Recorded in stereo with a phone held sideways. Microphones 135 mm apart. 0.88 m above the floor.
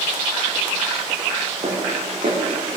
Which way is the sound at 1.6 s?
55° right (ahead or behind).